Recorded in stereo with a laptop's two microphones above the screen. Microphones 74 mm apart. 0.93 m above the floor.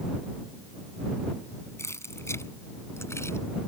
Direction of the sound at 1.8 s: 35° left (ahead or behind).